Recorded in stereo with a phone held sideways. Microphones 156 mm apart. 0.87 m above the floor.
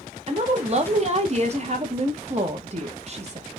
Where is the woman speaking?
45° right (ahead or behind), 0.8 m.